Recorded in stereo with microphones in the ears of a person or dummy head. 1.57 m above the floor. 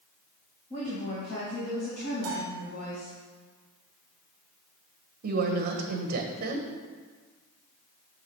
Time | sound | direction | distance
0.7 | a woman speaking | 30° left (ahead or behind) | 1.7 m
2.2 | a bell | 45° right (ahead or behind) | 2 m
5.2 | a woman speaking | 40° right (ahead or behind) | 1.2 m